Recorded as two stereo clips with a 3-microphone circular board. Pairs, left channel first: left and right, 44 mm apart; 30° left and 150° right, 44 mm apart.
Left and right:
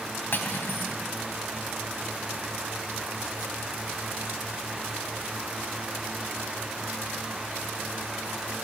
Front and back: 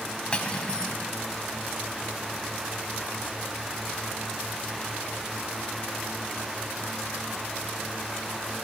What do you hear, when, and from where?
0.3 s cutlery clinking: 90° left, 1.1 m